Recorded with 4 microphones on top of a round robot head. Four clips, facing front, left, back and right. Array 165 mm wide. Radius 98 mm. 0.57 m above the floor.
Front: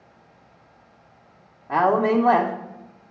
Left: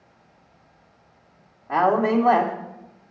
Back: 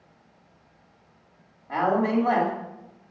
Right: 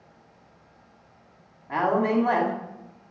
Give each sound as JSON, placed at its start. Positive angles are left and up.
{"t": 1.7, "sound": "a woman speaking", "azimuth_deg": 40, "distance_m": 1.4}